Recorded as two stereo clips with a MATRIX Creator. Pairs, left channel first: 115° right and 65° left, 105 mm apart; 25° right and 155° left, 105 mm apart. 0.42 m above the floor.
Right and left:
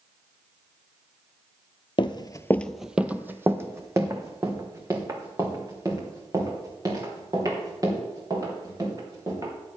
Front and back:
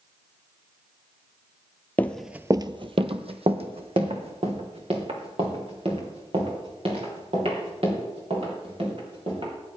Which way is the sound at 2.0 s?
90° right.